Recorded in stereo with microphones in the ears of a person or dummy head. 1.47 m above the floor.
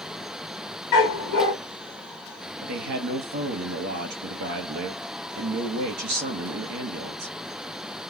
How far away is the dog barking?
About 2.5 m.